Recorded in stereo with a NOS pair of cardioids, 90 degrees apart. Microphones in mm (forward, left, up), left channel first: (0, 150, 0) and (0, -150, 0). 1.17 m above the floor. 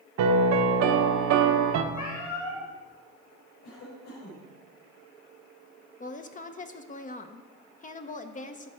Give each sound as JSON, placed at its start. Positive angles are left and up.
{"t": 0.2, "sound": "a piano", "azimuth_deg": -70, "distance_m": 1.0}
{"t": 1.9, "sound": "a cat meowing", "azimuth_deg": 65, "distance_m": 4.0}
{"t": 3.6, "sound": "a cough", "azimuth_deg": 65, "distance_m": 5.0}
{"t": 6.0, "sound": "a woman speaking", "azimuth_deg": 25, "distance_m": 0.6}